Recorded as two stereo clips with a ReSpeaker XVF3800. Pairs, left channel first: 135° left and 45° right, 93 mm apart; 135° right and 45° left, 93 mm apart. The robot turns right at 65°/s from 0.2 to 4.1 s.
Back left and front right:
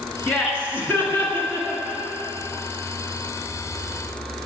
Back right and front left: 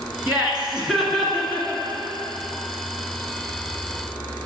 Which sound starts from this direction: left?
Laughter, at 0.3 s.